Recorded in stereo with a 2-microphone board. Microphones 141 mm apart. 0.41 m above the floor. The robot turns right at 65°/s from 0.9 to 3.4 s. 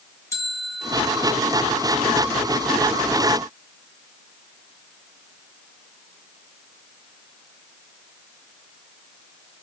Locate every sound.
0.3 s a bell: 150° left, 1.7 m; by 1.4 s straight behind, 1.7 m